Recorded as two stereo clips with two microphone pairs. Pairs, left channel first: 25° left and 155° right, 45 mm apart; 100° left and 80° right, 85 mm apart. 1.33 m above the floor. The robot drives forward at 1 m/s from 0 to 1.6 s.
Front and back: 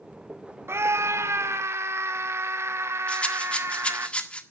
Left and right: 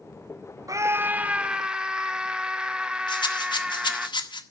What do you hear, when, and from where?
0.7 s a scream: 125° right, 0.5 m; by 4.1 s 160° right, 1.3 m
3.1 s a rattle: 90° left, 1.5 m